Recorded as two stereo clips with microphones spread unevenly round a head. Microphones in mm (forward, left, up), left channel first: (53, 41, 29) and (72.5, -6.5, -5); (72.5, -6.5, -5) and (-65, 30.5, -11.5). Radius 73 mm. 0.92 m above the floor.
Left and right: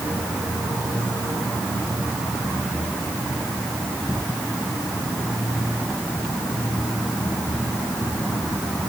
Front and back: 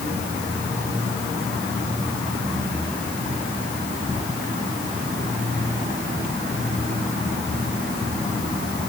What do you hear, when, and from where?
Only background noise.